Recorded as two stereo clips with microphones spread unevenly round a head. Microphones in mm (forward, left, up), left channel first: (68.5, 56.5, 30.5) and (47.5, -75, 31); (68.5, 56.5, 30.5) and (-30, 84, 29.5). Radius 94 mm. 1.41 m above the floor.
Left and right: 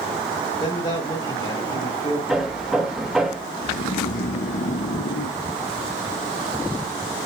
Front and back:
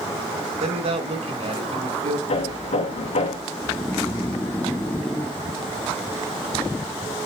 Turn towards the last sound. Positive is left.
turn(degrees=60)